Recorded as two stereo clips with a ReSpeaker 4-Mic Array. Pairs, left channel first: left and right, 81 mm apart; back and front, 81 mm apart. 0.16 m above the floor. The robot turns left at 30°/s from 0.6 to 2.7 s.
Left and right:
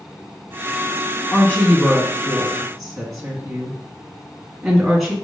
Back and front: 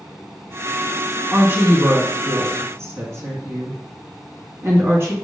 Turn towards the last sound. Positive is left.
turn(degrees=0)